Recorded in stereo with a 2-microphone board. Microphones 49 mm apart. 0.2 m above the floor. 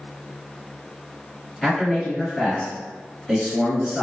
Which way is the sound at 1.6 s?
Centre (ahead or behind).